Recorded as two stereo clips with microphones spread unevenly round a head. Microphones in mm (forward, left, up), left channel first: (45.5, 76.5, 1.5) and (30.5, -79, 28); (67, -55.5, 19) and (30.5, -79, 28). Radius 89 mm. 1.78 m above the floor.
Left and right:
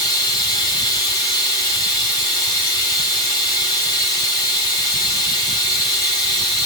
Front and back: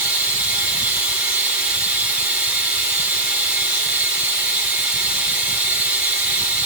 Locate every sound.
0.0 s running water: 155° left, 0.7 m